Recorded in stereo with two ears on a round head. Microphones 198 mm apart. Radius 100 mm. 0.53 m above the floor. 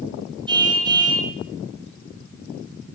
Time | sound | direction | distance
0.5 | a car horn | 20° right (ahead or behind) | 6 m